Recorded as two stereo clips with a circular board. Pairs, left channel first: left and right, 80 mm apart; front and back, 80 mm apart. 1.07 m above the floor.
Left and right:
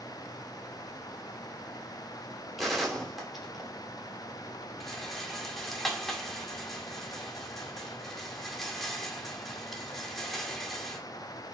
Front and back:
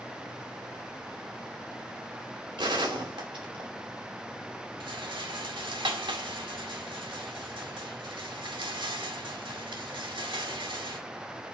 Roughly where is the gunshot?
Behind.